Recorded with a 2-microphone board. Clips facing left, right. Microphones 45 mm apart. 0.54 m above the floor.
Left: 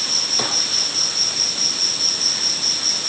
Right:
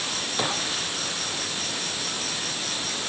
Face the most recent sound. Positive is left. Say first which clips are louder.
# left 1 dB
turn(degrees=-25)  # may be behind; listen again after turning